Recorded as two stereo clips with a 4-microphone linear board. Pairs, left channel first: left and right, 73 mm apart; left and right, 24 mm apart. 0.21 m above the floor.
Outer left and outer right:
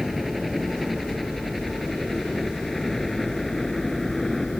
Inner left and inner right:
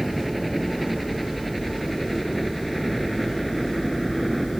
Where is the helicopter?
Centre (ahead or behind); by 4.6 s 5° left (ahead or behind).